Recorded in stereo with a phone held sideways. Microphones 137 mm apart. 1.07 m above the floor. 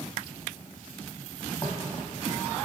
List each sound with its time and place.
1.6 s footsteps: 10° left (ahead or behind), 1.7 m